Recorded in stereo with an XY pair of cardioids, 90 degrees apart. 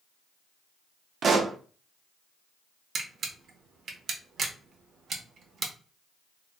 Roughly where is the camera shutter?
Ahead right.